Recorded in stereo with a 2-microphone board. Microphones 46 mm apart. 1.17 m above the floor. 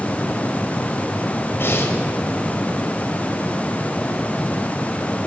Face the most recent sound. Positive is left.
turn(degrees=55)  # may be behind; listen again after turning